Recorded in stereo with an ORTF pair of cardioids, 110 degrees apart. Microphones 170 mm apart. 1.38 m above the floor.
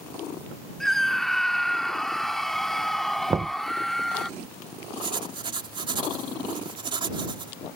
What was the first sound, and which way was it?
A scream, straight ahead.